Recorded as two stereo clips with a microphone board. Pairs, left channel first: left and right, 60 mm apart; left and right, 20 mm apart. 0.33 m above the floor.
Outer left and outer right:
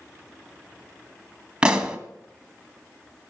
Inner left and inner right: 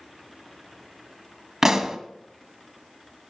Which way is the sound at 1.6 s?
15° right (ahead or behind).